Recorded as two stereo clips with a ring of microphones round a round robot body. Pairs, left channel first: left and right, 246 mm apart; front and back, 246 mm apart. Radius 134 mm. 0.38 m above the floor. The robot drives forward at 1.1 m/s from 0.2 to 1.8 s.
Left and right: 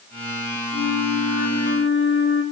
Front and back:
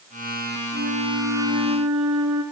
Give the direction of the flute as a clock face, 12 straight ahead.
8 o'clock.